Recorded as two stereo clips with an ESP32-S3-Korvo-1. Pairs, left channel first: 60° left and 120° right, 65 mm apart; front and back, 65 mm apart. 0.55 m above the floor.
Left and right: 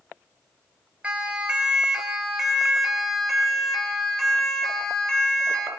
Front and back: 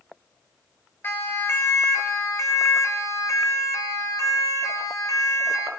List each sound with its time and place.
1.0 s a siren: 50° right, 4.5 m; by 5.7 s 15° right, 6.5 m